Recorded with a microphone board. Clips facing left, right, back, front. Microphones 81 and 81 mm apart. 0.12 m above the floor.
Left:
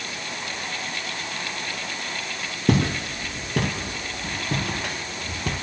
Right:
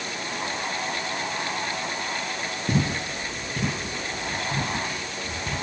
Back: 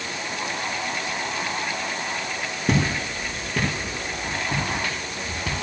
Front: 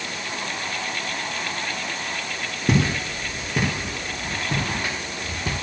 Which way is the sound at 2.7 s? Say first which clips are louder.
Left 5 dB, front 1 dB; 90° left.